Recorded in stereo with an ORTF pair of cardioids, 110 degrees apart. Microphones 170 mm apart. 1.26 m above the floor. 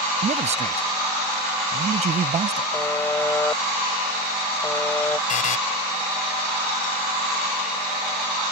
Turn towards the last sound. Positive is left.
turn(degrees=50)